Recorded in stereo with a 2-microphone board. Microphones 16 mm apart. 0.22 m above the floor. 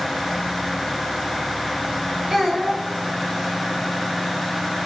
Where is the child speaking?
35° right (ahead or behind), 1.3 m.